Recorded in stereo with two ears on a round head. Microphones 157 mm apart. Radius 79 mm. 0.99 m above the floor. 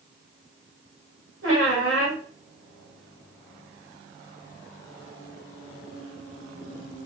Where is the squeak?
70° right (ahead or behind), 2 m.